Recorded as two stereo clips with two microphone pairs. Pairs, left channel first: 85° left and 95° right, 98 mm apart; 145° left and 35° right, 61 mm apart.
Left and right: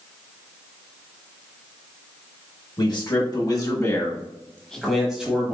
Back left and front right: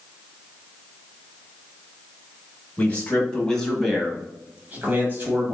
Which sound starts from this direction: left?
A man speaking, at 2.8 s.